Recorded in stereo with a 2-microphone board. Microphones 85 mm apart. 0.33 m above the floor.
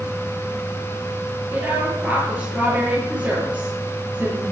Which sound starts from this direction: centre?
A woman speaking, at 1.5 s.